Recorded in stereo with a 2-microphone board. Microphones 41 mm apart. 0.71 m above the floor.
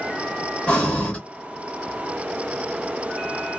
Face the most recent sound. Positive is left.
turn(degrees=30)  # may be behind; listen again after turning